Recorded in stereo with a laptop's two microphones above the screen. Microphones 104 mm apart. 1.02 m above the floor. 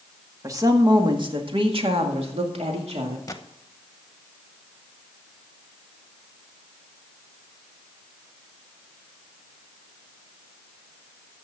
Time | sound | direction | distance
0.4 | a woman speaking | 30° right (ahead or behind) | 1.9 m
3.3 | a gunshot | 30° left (ahead or behind) | 0.9 m